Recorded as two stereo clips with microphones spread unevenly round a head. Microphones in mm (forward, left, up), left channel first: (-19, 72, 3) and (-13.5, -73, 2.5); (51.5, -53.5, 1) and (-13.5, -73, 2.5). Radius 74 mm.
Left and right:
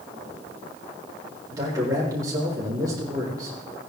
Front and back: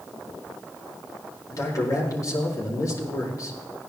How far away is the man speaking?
About 4.5 m.